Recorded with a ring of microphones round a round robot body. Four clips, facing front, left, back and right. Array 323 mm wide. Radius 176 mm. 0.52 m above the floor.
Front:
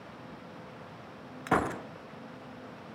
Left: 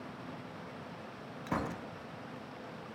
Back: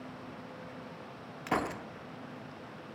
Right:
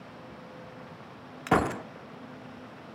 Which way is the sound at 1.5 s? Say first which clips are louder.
Right 11 dB, front 4 dB; 70° right.